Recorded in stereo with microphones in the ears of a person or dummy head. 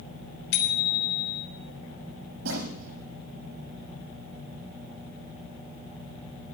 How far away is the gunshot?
About 8.5 m.